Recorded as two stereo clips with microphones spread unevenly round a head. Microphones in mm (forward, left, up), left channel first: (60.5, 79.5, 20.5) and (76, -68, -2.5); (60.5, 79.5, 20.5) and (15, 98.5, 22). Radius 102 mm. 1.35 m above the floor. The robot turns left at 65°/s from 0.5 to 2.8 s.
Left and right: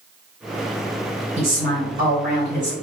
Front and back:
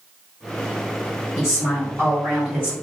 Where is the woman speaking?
45° right, 1.4 m; by 2.7 s 135° right, 1.4 m.